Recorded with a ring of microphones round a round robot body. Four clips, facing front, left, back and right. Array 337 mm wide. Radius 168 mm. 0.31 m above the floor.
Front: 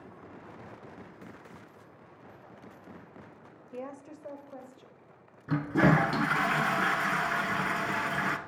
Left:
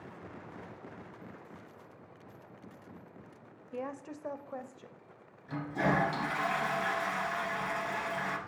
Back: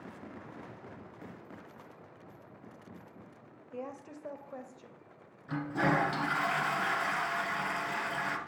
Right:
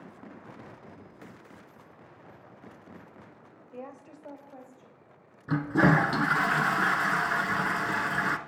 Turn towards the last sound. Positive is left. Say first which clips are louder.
# right 8 dB, front 5 dB
turn(degrees=-55)